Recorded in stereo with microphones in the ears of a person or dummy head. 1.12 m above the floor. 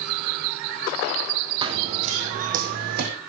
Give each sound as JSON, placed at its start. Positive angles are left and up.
{"t": 1.6, "sound": "running footsteps", "side_deg": -20, "distance_m": 3.0}